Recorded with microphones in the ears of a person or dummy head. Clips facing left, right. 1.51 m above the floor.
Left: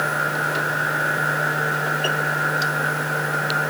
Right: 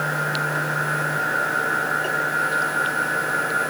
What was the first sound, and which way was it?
Only background noise.